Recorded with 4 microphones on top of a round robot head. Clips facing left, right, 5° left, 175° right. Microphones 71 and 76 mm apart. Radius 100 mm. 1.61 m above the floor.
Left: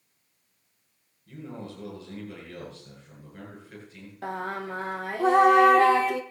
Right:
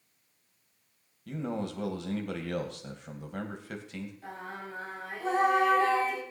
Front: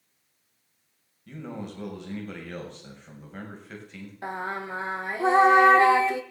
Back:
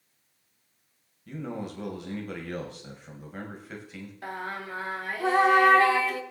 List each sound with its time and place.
1.3 s a man speaking: 90° right, 2.5 m
4.2 s singing: 70° left, 1.0 m